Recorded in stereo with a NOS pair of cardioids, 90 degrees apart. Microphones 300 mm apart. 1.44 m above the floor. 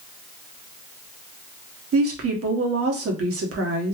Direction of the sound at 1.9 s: 50° right.